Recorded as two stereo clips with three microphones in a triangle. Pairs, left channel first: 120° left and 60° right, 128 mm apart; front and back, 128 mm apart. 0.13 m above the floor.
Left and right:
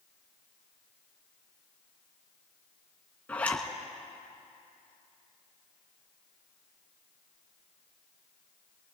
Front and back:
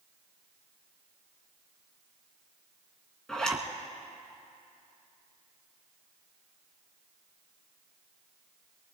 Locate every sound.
3.3 s a zipper: 70° left, 1.5 m